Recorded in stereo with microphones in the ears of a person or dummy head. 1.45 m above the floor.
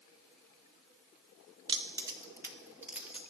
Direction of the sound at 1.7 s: 20° right (ahead or behind).